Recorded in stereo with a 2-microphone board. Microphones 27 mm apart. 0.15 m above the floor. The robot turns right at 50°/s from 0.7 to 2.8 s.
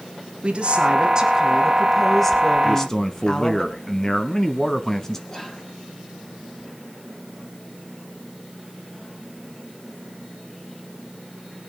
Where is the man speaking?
15° left (ahead or behind), 1.0 m.